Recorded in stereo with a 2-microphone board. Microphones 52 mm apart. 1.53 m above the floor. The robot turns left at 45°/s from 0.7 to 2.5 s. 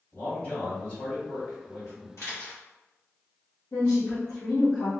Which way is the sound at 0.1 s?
145° left.